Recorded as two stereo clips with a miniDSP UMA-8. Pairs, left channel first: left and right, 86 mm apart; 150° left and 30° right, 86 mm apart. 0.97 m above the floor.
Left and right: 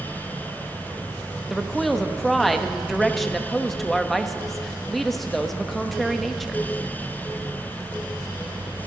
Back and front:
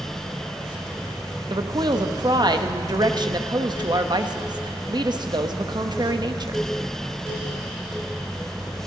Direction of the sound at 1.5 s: Straight ahead.